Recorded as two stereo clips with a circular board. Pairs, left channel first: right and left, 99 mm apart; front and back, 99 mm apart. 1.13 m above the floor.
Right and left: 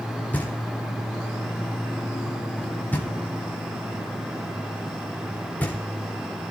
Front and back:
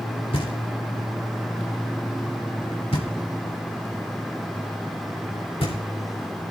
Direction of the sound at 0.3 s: 15° right.